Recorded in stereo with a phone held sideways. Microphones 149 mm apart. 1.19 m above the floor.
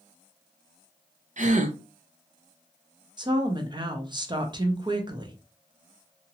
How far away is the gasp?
About 0.5 m.